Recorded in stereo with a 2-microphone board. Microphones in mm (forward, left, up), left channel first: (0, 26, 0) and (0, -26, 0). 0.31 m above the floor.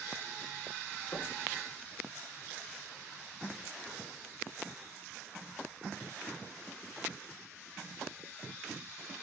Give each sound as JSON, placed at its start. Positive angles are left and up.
{"t": 1.1, "sound": "knocking", "side_deg": 60, "distance_m": 1.9}